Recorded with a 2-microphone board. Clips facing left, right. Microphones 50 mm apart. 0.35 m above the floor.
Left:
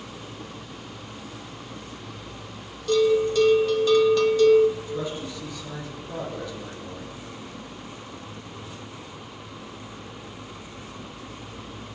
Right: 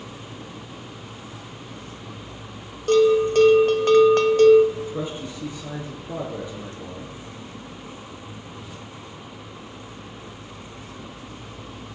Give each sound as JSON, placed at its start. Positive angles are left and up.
{"t": 2.9, "sound": "a bell", "side_deg": -50, "distance_m": 1.1}
{"t": 4.8, "sound": "a man speaking", "side_deg": -25, "distance_m": 5.0}